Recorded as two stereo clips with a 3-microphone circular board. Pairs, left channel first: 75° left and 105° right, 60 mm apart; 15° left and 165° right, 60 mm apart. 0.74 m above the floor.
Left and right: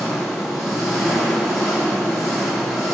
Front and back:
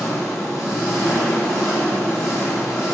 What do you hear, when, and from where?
0.0 s an engine running: 25° right, 6 m